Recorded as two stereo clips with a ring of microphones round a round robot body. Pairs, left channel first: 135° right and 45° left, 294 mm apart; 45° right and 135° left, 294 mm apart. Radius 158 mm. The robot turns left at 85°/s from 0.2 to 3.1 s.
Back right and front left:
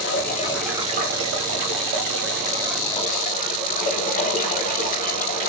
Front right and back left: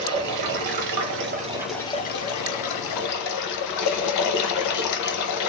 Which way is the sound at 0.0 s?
175° left.